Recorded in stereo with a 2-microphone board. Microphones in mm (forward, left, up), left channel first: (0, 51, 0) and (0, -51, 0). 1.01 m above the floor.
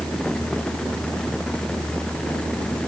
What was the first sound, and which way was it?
Only background noise.